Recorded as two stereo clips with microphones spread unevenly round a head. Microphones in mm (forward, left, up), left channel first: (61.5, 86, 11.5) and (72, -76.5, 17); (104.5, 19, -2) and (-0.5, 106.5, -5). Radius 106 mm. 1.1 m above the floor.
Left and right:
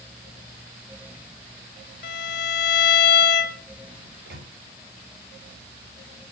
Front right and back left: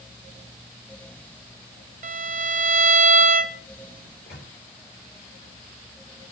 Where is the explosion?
I don't hear an explosion.